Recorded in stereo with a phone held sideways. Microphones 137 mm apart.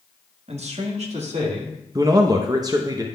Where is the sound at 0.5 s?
55° right (ahead or behind), 1.0 m.